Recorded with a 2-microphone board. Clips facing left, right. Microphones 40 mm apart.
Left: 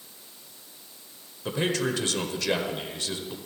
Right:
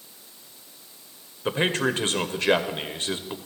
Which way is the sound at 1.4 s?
40° right (ahead or behind).